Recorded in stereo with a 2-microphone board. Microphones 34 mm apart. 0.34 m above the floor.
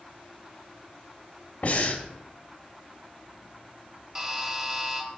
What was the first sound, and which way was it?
Breathing, 45° left (ahead or behind).